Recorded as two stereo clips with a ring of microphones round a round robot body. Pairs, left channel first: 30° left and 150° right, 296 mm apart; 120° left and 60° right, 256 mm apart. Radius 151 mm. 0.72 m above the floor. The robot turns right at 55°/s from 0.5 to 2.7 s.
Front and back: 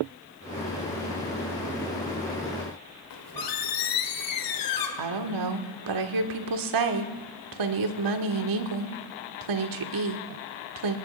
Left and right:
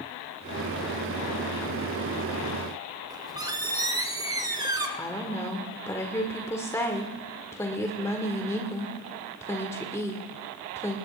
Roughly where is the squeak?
Ahead.